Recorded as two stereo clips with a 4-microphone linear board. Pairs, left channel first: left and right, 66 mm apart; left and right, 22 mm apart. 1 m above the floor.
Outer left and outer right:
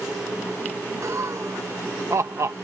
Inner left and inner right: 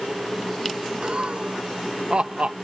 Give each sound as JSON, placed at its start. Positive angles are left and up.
{"t": 1.0, "sound": "laughter", "side_deg": -50}